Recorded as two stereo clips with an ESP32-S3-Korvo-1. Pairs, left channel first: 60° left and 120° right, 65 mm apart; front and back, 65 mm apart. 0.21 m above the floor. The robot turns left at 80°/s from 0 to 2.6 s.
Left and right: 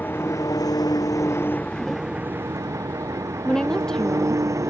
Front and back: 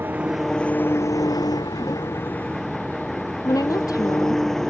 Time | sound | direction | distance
0.0 | an engine running | 125° left | ?
3.5 | a woman speaking | 20° right | ?